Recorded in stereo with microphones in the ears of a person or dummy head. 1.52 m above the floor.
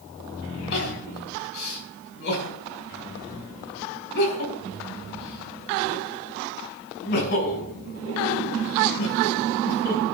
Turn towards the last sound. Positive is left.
turn(degrees=60)  # may be behind; listen again after turning